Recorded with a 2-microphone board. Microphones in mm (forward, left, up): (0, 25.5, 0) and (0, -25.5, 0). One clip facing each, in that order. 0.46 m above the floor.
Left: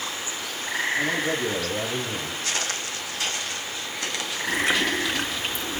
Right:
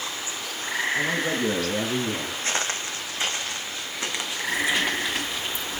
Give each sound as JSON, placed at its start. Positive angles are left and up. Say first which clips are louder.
{"t": 0.9, "sound": "a man speaking", "louder": "even", "side_deg": -55, "distance_m": 4.5}
{"t": 2.4, "sound": "footsteps", "louder": "right 3 dB", "side_deg": -30, "distance_m": 1.4}
{"t": 4.5, "sound": "chewing", "louder": "left 1 dB", "side_deg": 55, "distance_m": 2.5}